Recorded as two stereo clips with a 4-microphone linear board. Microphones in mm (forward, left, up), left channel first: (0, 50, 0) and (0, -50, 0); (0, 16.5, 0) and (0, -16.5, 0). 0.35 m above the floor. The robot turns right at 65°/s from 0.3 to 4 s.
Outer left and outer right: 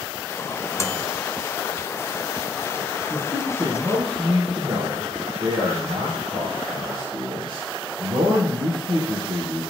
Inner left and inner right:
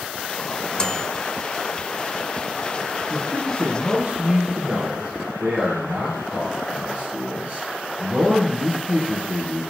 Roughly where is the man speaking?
Behind.